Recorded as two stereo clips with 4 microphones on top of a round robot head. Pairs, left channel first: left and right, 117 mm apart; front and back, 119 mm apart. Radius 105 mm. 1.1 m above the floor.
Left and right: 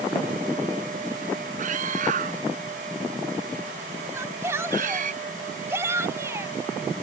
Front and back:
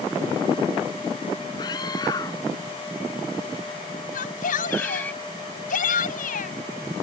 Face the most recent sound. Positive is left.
turn(degrees=-15)